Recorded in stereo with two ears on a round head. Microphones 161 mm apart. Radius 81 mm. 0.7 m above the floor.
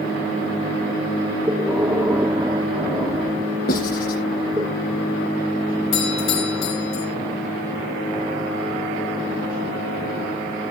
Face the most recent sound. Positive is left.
turn(degrees=80)